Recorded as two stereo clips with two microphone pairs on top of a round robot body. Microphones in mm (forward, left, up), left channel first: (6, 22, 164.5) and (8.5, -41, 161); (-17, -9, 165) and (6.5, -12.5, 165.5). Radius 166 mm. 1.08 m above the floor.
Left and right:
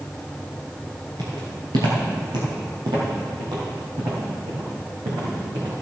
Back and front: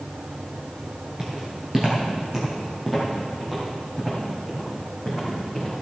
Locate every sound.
1.2 s footsteps: 75° right, 1.1 m; by 5.7 s 100° right, 6 m